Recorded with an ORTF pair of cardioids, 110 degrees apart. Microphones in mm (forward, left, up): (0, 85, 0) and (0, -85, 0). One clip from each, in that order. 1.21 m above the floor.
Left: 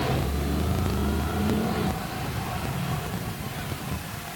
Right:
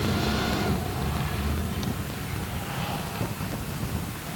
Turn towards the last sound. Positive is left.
No sound to turn to.